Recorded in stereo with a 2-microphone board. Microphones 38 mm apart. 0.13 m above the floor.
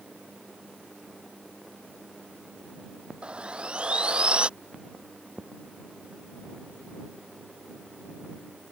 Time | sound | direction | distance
3.2 | sawing | 30° right (ahead or behind) | ?